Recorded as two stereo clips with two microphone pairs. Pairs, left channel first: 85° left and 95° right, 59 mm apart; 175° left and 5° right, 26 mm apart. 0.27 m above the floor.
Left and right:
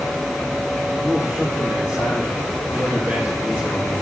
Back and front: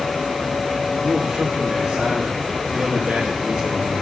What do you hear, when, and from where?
1.0 s a man speaking: 35° right, 8 m